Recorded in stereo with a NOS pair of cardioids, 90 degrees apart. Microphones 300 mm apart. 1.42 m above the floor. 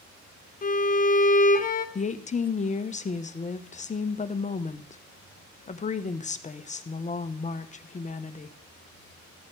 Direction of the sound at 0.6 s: 30° left.